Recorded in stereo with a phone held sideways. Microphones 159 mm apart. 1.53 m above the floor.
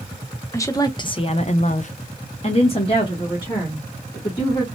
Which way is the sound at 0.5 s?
20° left (ahead or behind).